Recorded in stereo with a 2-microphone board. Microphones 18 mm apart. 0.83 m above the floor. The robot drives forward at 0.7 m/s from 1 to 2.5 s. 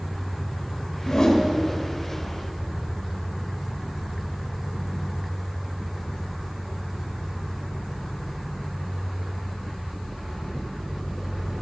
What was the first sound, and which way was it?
A whoosh, 40° left (ahead or behind).